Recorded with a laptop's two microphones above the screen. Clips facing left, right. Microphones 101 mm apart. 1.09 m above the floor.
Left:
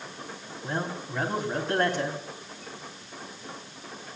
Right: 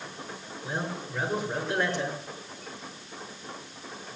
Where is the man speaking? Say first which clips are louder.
Left 2 dB; 50° left (ahead or behind), 3 m.